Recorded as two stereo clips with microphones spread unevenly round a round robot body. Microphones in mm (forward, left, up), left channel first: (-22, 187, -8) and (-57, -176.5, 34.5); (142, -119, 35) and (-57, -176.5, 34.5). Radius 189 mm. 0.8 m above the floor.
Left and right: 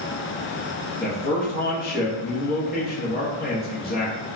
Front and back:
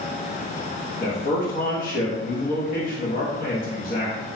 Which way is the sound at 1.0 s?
40° left.